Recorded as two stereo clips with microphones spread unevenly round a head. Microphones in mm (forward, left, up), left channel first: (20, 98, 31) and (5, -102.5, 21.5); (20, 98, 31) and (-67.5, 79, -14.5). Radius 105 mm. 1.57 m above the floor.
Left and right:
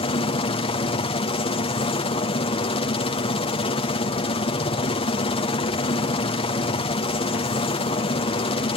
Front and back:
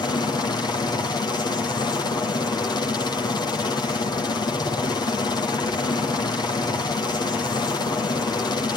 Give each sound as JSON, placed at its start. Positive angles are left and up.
{"t": 0.0, "sound": "a helicopter", "azimuth_deg": 60}